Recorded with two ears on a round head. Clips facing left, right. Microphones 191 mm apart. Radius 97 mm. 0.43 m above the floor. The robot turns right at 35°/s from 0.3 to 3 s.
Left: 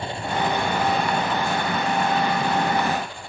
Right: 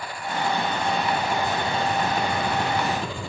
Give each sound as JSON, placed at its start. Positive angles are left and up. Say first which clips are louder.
{"t": 0.0, "sound": "an engine running", "louder": "left 3 dB", "azimuth_deg": 155}